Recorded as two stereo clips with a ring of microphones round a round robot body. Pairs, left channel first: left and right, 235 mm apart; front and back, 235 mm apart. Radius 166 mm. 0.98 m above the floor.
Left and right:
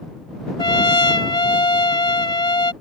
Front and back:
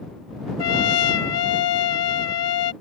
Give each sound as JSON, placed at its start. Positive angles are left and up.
{"t": 0.6, "sound": "a trumpet", "azimuth_deg": 20}